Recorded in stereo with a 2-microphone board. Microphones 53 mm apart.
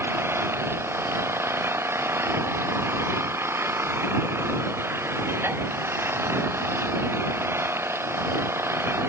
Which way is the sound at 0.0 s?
50° right (ahead or behind).